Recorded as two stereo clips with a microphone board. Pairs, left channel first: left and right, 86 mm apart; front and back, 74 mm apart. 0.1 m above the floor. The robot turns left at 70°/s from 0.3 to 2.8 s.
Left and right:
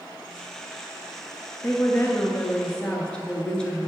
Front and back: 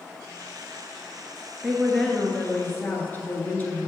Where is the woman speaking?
105° left, 1.2 m; by 3.9 s 25° left, 1.2 m.